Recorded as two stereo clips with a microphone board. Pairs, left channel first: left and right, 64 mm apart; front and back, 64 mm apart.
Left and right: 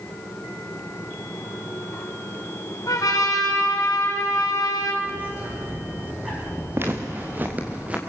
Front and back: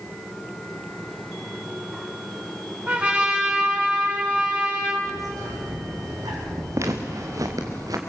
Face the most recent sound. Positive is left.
turn(degrees=-160)